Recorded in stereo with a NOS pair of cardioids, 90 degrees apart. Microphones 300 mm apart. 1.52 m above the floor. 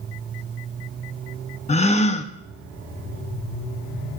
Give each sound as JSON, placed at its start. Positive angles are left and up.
{"t": 1.7, "sound": "a gasp", "azimuth_deg": 20, "distance_m": 0.9}